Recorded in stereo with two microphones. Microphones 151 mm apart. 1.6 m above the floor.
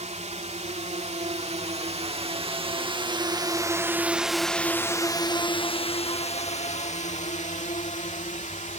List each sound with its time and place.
0.0 s a drone: 50° right (ahead or behind); by 8.8 s 55° left (ahead or behind)